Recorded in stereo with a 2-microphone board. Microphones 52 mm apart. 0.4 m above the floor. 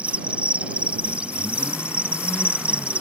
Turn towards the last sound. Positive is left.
turn(degrees=-25)  # may be behind; listen again after turning